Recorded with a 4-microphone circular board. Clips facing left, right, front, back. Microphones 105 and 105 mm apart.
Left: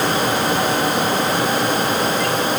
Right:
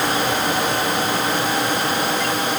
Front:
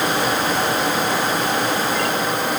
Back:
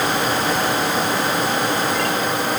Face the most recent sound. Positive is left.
No sound to turn to.